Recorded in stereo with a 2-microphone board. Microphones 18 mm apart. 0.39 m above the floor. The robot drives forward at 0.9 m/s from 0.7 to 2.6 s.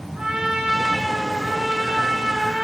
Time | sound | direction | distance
0.1 | a trumpet | 65° right (ahead or behind) | 6.5 m